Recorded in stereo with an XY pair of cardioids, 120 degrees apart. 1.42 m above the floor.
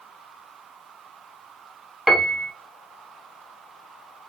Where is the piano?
5° right, 1.0 m.